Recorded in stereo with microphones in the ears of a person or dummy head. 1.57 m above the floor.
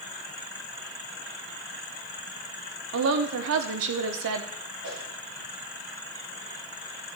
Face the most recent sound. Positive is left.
turn(degrees=-70)  # may be behind; listen again after turning